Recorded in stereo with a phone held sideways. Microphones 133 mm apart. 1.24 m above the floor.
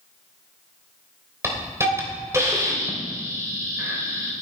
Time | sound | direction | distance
1.4 | a hiss | 20° right (ahead or behind) | 3 m